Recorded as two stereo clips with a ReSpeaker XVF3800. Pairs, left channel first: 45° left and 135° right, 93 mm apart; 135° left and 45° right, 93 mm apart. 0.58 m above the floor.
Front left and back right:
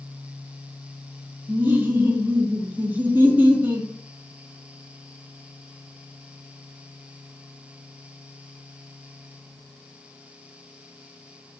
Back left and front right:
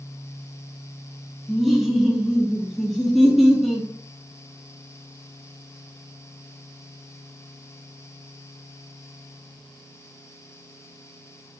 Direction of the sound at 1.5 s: 135° right.